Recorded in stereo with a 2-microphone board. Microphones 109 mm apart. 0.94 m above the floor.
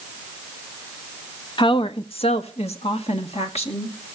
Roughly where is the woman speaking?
Left.